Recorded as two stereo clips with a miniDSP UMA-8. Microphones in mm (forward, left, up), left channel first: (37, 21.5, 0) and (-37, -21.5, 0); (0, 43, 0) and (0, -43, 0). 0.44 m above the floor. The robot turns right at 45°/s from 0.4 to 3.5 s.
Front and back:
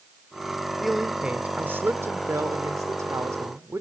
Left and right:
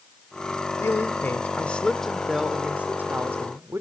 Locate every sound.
0.8 s a man speaking: 120° left, 1.1 m; by 3.8 s 120° right, 1.1 m